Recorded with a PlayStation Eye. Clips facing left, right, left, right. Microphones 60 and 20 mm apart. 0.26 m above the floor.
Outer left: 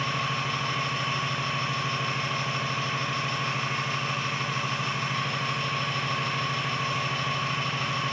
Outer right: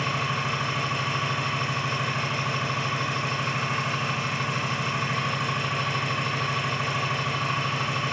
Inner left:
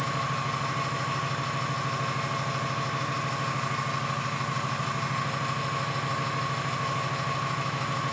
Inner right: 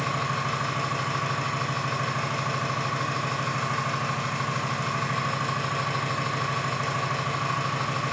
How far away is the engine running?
About 3.5 m.